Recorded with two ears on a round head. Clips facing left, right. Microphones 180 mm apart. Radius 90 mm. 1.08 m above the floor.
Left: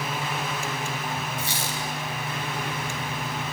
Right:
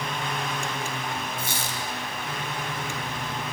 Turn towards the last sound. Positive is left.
turn(degrees=-45)  # may be behind; listen again after turning